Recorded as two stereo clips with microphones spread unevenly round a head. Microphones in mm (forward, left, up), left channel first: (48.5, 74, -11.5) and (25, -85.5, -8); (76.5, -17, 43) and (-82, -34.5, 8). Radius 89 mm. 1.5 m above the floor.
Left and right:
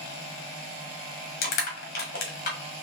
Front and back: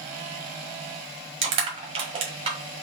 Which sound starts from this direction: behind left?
Crushing, at 1.4 s.